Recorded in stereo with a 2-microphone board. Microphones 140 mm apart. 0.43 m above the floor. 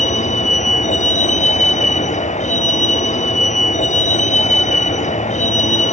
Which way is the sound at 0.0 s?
60° left (ahead or behind).